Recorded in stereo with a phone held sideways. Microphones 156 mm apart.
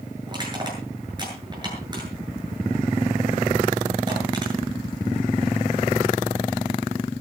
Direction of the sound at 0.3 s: 30° right (ahead or behind).